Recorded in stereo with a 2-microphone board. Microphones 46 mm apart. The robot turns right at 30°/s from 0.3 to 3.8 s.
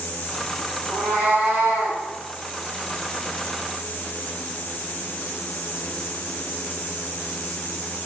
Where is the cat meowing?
85° right, 1.6 m; by 2.0 s 50° right, 1.6 m.